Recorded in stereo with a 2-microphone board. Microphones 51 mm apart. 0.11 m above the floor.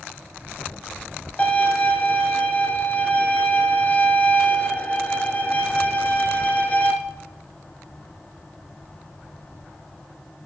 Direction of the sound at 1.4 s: 30° left (ahead or behind).